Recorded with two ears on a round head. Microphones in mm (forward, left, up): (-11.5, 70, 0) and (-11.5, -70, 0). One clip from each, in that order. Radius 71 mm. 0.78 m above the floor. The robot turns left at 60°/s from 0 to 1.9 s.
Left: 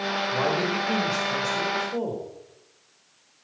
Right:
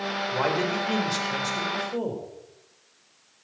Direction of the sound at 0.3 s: 90° right.